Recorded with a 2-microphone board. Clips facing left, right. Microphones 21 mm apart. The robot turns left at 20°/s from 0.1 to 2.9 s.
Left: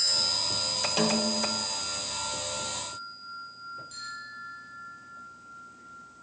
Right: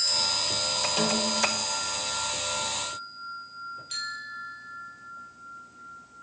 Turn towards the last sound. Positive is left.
turn(degrees=-65)  # may be behind; listen again after turning